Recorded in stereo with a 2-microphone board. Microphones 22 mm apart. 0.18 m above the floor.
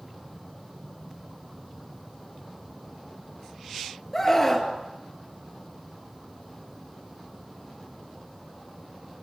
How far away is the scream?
About 4 m.